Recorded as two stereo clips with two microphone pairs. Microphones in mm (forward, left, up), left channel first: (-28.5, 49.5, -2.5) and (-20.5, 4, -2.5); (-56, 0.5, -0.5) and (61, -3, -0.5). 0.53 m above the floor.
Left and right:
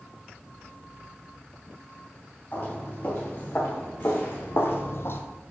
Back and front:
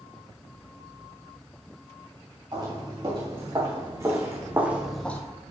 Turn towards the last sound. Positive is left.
turn(degrees=110)